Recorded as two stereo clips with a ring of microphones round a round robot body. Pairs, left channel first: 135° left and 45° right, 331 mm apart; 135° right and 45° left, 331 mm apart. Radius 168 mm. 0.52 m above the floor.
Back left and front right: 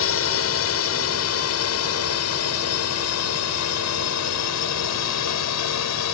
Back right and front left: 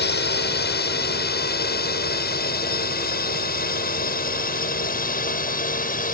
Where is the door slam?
No door slam in this recording.